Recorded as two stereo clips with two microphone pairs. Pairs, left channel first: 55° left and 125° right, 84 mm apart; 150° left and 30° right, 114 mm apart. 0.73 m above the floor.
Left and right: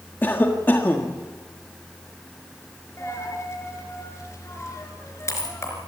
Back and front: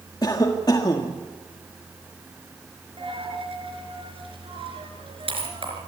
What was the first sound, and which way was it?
A cough, 115° left.